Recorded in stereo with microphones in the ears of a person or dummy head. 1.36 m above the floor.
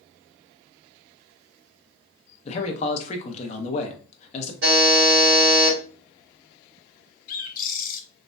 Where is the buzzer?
55° right (ahead or behind), 1.6 m.